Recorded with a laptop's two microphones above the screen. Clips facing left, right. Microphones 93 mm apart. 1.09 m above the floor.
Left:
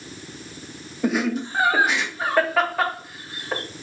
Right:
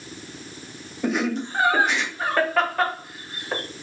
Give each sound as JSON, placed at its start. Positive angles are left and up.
{"t": 1.0, "sound": "laughter", "side_deg": 0, "distance_m": 1.0}